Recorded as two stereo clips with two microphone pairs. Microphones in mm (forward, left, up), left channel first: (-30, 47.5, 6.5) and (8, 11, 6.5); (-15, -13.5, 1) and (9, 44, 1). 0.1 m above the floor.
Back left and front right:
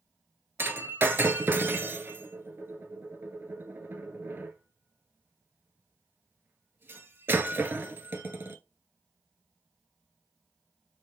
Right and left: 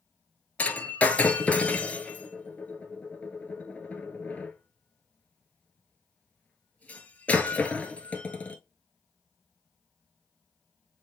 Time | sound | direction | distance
0.6 | breaking glass | 55° right | 0.7 m